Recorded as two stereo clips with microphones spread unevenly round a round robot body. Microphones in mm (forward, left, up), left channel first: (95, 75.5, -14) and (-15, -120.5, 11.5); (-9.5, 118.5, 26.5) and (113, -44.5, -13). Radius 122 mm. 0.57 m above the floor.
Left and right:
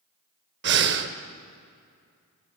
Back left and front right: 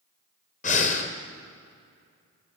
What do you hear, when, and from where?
0.6 s breathing: 170° right, 0.9 m